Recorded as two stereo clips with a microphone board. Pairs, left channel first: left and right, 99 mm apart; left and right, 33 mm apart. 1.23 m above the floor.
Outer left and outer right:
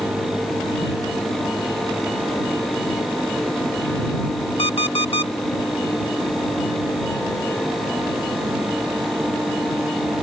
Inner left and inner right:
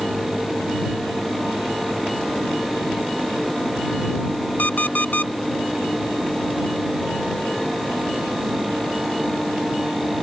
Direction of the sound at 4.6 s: 75° left (ahead or behind).